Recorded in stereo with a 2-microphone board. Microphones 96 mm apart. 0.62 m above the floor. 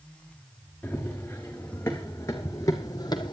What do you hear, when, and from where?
0.8 s running footsteps: 15° left (ahead or behind), 4 m; by 3.3 s 50° left (ahead or behind), 1.7 m